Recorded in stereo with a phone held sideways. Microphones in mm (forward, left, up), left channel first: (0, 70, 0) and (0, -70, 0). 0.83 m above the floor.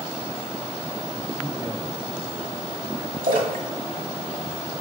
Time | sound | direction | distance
1.3 | a man speaking | 20° right (ahead or behind) | 1.5 m
3.2 | a splash | 80° right | 2 m